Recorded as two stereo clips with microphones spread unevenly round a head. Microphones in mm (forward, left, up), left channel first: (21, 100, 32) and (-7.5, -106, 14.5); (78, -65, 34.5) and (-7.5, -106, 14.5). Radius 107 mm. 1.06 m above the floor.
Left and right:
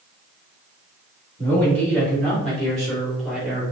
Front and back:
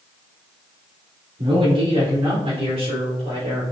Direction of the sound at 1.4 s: 160° left.